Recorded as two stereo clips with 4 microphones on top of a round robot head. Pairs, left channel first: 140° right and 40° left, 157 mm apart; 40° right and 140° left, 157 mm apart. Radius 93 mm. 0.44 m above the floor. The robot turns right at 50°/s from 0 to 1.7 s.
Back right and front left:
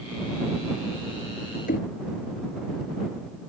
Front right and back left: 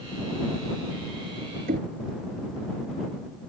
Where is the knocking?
Straight behind.